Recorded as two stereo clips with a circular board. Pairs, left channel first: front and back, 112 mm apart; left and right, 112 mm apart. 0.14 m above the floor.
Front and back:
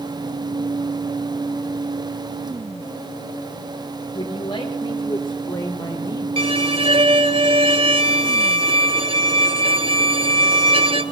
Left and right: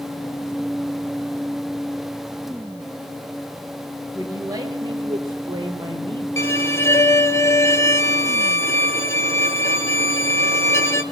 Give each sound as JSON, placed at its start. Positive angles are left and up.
{"t": 4.1, "sound": "a man speaking", "azimuth_deg": -35, "distance_m": 2.5}
{"t": 6.4, "sound": "a violin", "azimuth_deg": 155, "distance_m": 0.8}